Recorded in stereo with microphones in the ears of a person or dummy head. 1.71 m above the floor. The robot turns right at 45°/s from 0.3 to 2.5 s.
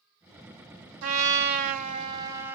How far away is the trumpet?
About 0.8 m.